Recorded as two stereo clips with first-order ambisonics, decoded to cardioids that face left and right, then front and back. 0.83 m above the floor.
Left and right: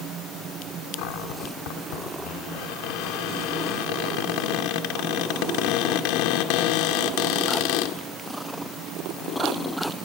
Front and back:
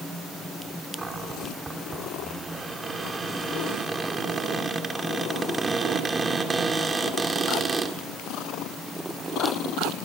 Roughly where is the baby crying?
I don't hear a baby crying.